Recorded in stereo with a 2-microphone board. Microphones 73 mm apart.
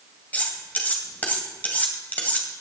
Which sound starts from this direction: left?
Cutlery clinking, at 0.3 s.